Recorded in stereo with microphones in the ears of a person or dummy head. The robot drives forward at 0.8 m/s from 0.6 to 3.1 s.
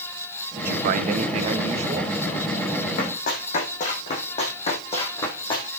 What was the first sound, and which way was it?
A man speaking, 55° right (ahead or behind).